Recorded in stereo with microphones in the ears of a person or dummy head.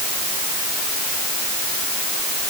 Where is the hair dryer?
I don't hear a hair dryer.